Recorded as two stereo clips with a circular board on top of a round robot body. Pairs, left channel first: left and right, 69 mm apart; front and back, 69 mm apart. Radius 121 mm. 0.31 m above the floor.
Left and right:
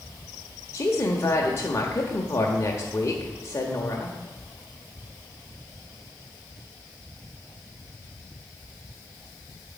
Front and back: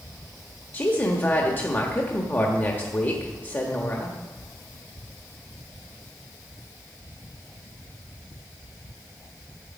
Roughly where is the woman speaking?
Ahead left.